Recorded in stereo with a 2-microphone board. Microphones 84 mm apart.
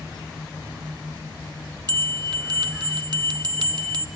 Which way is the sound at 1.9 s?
60° right (ahead or behind).